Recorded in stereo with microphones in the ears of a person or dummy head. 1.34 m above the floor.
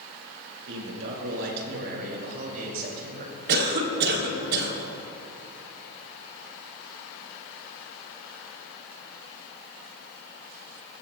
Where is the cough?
60° right (ahead or behind), 3.5 m.